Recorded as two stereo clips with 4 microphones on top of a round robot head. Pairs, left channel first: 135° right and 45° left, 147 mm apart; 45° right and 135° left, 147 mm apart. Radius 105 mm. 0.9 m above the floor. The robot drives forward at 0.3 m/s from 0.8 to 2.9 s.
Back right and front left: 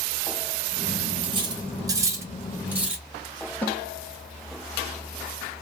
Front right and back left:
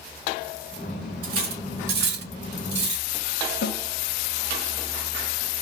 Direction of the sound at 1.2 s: 105° left.